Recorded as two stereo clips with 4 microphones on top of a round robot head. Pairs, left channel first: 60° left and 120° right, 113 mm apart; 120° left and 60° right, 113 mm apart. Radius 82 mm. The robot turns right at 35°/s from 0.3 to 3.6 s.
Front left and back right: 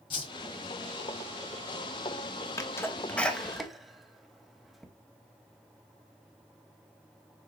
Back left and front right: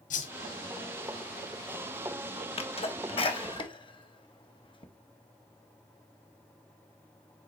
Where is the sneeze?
115° left, 1.6 m; by 4.9 s 150° left, 1.6 m.